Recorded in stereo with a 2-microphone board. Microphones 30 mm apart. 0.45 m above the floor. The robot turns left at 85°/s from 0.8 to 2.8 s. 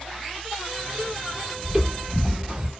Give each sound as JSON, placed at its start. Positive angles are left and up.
{"t": 1.6, "sound": "footsteps", "side_deg": -25, "distance_m": 0.9}